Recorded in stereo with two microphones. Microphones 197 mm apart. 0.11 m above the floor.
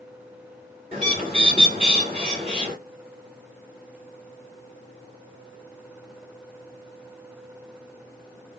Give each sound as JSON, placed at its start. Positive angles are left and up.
{"t": 0.9, "sound": "a bird", "side_deg": -30, "distance_m": 2.0}